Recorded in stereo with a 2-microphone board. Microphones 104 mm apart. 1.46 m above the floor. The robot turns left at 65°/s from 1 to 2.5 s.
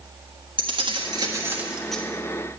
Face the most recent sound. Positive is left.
turn(degrees=140)